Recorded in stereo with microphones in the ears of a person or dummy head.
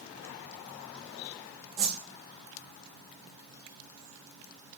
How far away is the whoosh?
About 0.6 m.